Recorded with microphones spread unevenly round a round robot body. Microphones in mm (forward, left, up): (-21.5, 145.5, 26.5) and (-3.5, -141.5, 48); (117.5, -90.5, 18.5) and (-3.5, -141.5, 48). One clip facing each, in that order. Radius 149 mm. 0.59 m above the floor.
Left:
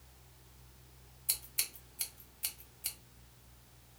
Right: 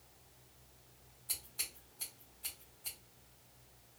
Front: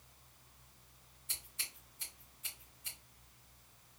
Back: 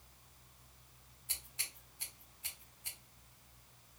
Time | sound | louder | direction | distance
1.3 | scissors | left 1 dB, even | 140° left | 1.0 m